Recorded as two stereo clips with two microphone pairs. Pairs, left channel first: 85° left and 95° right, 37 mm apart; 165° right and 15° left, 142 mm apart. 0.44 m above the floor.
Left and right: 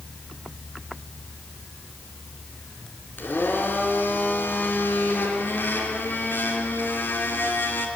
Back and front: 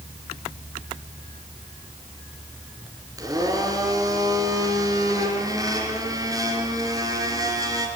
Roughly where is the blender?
Left.